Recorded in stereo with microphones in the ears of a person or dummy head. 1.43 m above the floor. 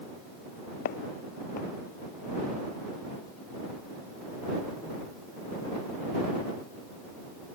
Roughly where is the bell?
I don't hear a bell.